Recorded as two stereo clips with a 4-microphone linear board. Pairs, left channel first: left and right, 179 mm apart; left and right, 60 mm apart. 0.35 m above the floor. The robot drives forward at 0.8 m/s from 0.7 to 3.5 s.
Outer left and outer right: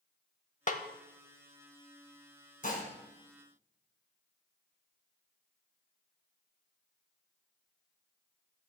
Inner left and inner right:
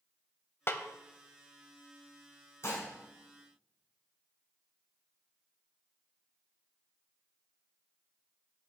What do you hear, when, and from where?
0.7 s a snare drum: 45° left (ahead or behind), 0.7 m; by 0.8 s 50° left (ahead or behind), 0.6 m
2.6 s dishes clattering: 50° left (ahead or behind), 2.5 m